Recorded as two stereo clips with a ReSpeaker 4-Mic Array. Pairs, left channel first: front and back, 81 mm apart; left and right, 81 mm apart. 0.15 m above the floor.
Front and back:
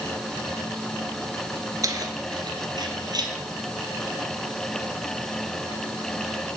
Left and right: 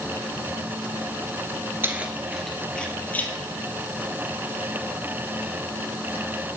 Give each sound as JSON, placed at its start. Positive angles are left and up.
{"t": 1.8, "sound": "keys jangling", "azimuth_deg": -145, "distance_m": 1.5}